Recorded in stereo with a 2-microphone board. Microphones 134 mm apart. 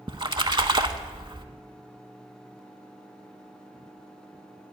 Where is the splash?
40° right (ahead or behind), 0.6 m.